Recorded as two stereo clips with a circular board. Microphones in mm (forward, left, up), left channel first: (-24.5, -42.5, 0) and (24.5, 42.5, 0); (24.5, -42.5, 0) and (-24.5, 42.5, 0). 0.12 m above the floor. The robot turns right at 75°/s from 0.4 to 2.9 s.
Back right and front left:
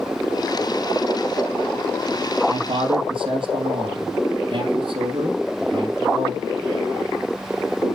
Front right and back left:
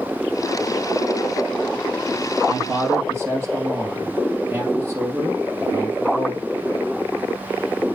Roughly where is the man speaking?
Ahead left.